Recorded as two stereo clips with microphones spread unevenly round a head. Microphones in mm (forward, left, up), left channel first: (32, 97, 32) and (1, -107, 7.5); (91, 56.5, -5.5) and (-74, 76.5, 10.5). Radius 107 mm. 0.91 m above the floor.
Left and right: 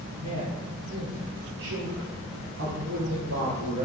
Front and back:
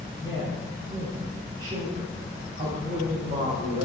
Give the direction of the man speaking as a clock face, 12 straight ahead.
3 o'clock.